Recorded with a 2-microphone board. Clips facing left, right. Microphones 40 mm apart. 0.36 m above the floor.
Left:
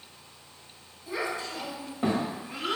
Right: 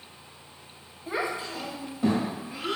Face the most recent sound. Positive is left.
turn(degrees=65)  # may be behind; listen again after turning